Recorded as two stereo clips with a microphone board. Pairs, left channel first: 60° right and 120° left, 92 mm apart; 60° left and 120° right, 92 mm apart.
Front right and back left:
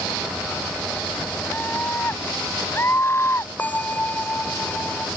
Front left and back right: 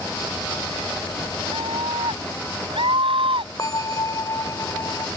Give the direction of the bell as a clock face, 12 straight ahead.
12 o'clock.